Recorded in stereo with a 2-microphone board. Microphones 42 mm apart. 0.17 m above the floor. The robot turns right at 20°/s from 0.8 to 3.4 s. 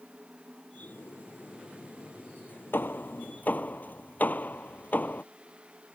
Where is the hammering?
55° left (ahead or behind); by 5.2 s 45° left (ahead or behind).